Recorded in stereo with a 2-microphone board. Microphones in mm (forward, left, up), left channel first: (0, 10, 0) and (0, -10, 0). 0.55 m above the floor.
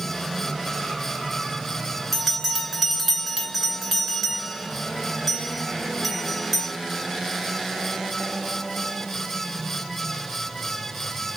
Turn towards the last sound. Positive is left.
turn(degrees=-10)  # may be behind; listen again after turning